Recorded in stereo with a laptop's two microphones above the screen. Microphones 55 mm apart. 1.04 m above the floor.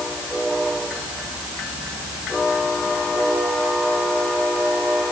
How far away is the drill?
I don't hear a drill.